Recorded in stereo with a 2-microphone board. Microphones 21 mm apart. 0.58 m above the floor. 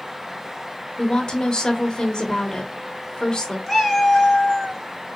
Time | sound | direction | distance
1.0 | a woman speaking | 40° left (ahead or behind) | 1.4 m
3.7 | a cat meowing | 5° left (ahead or behind) | 1.4 m